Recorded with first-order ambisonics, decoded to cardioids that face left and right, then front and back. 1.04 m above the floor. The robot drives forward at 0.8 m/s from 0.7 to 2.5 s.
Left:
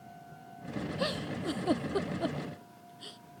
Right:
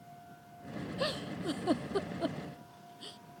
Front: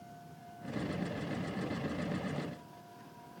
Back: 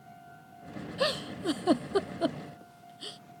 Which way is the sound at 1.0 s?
175° left.